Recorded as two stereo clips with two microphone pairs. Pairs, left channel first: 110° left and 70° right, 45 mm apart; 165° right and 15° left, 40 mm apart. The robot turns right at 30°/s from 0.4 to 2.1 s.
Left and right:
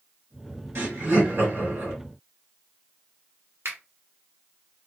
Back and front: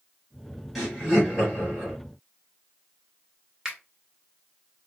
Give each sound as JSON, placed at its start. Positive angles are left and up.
{"t": 0.8, "sound": "laughter", "azimuth_deg": -75, "distance_m": 1.9}
{"t": 3.6, "sound": "a finger snap", "azimuth_deg": -60, "distance_m": 1.3}